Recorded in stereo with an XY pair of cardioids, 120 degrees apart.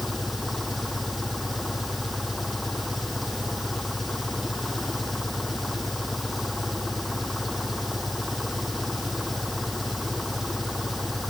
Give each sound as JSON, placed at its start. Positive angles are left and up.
{"t": 0.0, "sound": "an engine running", "azimuth_deg": 5}